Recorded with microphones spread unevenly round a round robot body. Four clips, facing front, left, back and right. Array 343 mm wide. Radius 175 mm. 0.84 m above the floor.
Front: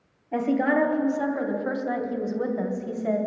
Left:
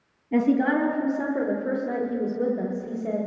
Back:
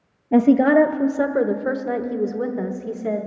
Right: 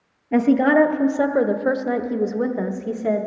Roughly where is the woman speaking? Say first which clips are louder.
Right 5 dB, back 9 dB; behind.